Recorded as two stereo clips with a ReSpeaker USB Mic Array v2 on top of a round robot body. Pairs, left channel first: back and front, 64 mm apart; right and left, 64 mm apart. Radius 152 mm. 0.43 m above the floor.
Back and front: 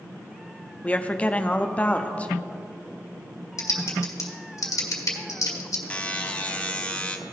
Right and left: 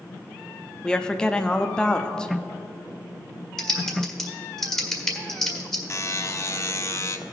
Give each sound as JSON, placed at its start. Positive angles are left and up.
{"t": 0.8, "sound": "a woman speaking", "azimuth_deg": -150, "distance_m": 0.7}
{"t": 3.6, "sound": "typing on a keyboard", "azimuth_deg": -170, "distance_m": 1.7}
{"t": 5.9, "sound": "a buzzer", "azimuth_deg": -115, "distance_m": 1.0}